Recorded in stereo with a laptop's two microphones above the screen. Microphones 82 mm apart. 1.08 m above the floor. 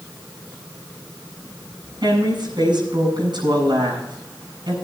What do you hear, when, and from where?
2.0 s a woman speaking: 65° right (ahead or behind), 7.5 m